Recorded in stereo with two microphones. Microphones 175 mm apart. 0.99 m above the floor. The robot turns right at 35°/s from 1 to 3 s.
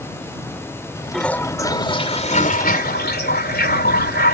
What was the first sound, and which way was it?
A toilet flushing, 5° left.